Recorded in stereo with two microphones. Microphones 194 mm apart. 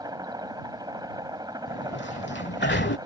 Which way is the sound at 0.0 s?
20° right (ahead or behind).